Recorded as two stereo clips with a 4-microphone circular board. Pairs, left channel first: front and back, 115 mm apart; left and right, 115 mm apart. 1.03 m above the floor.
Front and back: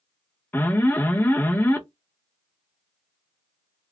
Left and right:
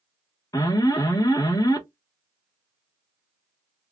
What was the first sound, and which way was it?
An alarm, 60° left.